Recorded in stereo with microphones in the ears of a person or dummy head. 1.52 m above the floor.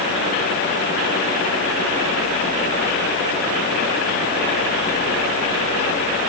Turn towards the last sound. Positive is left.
No sound to turn to.